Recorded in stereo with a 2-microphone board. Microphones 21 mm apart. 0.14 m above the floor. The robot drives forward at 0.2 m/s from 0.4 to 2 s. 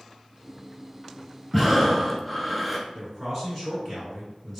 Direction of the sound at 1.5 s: 10° right (ahead or behind).